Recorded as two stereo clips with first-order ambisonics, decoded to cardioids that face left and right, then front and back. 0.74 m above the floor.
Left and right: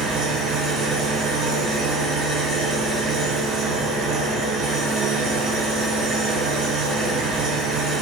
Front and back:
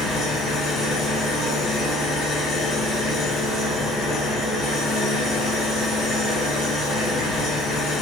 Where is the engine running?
65° right, 1.4 m.